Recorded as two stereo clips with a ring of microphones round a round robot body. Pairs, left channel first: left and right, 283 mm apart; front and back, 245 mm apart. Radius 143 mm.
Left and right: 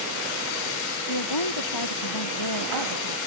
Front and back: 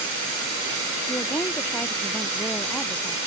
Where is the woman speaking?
80° left; by 3.2 s 85° left.